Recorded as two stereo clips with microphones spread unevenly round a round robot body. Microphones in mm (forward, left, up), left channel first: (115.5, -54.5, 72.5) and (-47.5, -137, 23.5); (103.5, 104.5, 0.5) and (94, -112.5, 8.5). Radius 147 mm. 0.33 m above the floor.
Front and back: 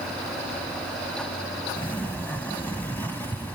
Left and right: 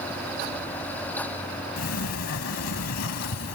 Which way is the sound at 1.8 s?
115° left.